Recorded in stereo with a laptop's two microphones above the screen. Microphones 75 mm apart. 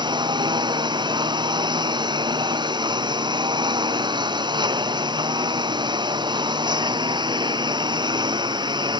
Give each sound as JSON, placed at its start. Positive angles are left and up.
{"t": 0.0, "sound": "a lawn mower", "side_deg": -80}